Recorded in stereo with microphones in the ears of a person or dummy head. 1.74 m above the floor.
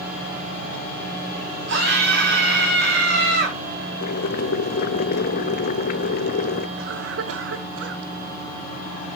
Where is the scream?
60° right (ahead or behind), 4.5 m.